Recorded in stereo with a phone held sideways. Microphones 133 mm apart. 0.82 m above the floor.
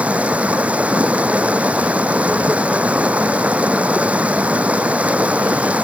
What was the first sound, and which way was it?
Running water, 10° right (ahead or behind).